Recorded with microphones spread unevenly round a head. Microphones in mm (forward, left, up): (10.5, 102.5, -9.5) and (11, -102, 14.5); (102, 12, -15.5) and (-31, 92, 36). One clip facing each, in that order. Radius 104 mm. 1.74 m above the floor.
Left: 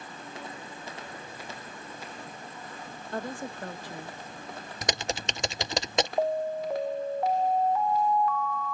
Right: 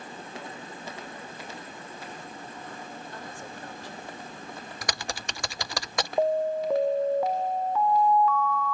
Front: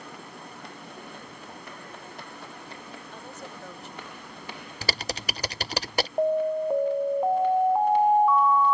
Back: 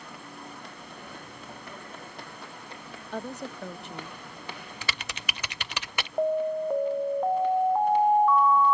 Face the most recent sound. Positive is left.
turn(degrees=-105)